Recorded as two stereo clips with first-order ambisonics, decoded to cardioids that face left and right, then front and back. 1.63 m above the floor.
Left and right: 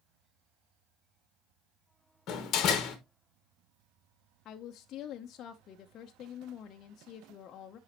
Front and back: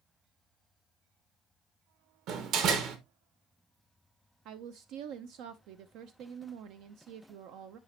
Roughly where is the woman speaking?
Behind left.